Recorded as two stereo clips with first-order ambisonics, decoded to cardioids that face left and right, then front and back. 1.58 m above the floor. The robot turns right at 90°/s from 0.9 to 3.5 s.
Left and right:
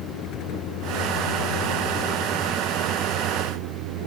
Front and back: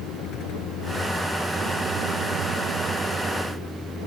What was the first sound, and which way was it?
A vehicle, 45° left.